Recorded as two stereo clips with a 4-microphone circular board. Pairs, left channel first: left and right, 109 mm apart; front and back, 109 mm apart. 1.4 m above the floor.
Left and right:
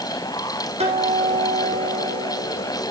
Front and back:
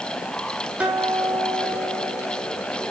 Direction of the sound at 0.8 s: 100° right.